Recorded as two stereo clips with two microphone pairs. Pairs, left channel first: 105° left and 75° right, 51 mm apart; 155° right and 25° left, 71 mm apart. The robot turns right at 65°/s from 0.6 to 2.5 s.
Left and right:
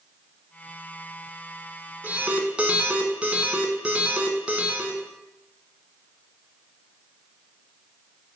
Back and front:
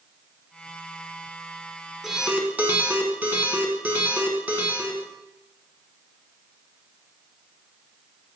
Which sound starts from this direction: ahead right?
An alarm, at 2.0 s.